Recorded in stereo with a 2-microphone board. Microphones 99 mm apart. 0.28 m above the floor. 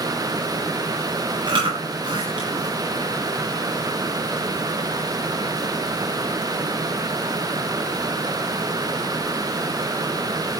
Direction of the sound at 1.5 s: 50° right (ahead or behind).